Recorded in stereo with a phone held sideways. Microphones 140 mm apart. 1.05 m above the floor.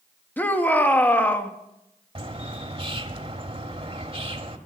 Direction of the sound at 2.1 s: 40° right (ahead or behind).